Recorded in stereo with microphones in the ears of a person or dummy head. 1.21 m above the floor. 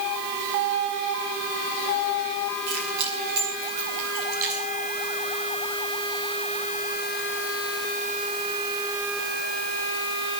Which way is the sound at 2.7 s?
60° right (ahead or behind).